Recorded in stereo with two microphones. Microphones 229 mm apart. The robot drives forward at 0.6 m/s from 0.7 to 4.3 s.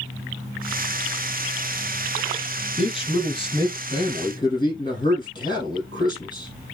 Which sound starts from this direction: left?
A man speaking, at 2.8 s.